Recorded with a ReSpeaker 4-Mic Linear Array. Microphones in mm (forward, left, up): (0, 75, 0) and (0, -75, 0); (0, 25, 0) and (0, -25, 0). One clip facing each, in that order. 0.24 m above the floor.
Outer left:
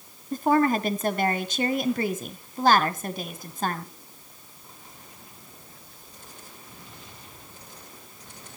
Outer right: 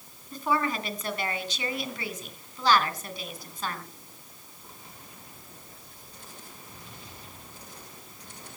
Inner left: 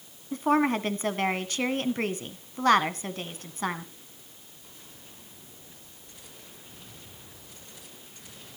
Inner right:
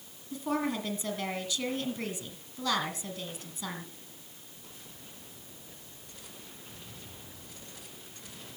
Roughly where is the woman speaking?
Left.